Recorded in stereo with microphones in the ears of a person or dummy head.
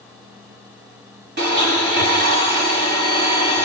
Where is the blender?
65° right (ahead or behind), 6.5 m.